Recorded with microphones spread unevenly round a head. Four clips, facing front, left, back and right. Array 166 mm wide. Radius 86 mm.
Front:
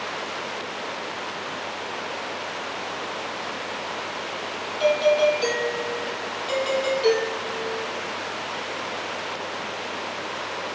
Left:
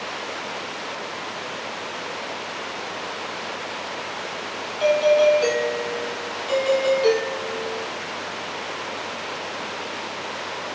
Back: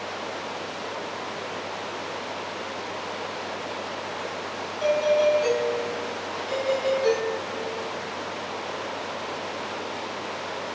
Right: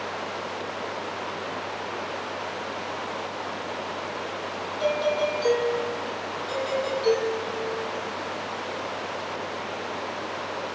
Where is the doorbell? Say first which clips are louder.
Left 8 dB, front 2 dB; 55° left, 4 m.